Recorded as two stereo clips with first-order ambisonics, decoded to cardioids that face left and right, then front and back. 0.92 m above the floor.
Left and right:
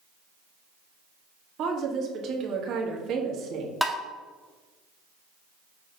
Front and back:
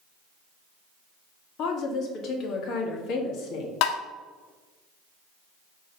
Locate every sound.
1.6 s a woman speaking: 40° right, 1.3 m
3.8 s tapping: straight ahead, 0.7 m